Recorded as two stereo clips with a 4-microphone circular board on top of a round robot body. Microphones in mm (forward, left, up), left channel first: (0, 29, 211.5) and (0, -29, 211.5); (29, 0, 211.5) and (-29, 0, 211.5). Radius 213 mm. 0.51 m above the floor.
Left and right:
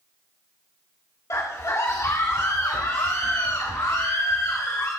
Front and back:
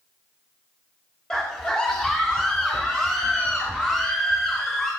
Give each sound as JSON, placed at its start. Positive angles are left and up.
{"t": 1.3, "sound": "a scream", "azimuth_deg": 80, "distance_m": 2.5}